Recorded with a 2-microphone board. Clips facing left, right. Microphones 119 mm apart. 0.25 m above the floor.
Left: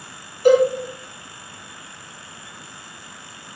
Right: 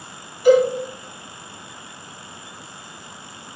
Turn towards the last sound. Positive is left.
turn(degrees=50)  # may be behind; listen again after turning